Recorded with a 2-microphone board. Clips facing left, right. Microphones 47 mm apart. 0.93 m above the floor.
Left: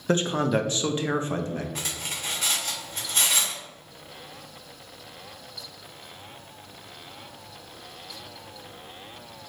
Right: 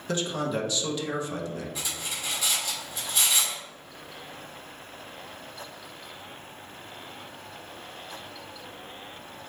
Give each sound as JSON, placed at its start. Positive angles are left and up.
{"t": 0.1, "sound": "a man speaking", "side_deg": 40, "distance_m": 0.7}
{"t": 1.8, "sound": "cutlery clinking", "side_deg": 50, "distance_m": 1.8}